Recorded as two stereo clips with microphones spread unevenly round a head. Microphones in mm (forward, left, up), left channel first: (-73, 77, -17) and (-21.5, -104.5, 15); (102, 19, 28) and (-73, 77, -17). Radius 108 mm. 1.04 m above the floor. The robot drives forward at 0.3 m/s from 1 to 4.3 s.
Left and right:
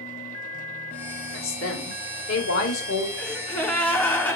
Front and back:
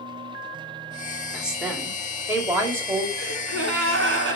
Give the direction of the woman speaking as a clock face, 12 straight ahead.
9 o'clock.